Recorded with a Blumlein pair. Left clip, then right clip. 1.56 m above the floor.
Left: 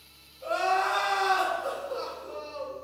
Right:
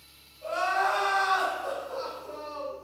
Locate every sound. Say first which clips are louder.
0.4 s crying: left 1 dB; 60° left, 1.9 m